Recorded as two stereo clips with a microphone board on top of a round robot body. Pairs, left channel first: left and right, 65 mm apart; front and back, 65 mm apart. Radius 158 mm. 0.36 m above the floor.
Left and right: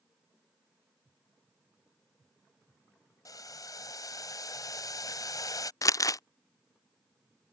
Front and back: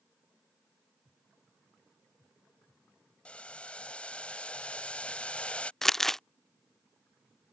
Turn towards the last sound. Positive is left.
turn(degrees=80)